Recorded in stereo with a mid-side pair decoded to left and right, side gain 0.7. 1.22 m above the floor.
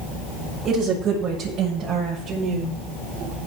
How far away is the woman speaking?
About 8.5 m.